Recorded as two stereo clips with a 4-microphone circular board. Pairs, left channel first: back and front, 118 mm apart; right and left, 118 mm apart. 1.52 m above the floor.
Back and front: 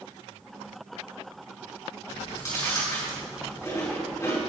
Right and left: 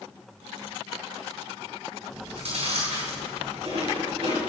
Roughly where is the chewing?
Behind left.